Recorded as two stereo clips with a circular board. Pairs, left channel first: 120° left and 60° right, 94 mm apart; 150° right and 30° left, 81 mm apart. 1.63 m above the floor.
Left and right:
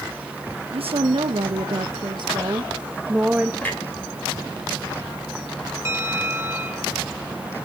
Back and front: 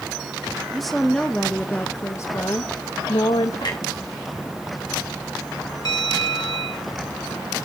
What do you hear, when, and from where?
0.7 s a woman speaking: 60° right, 1.3 m; by 3.5 s 140° right, 1.0 m
3.6 s a clunk: 170° right, 3 m
5.8 s a bell: 120° right, 1.6 m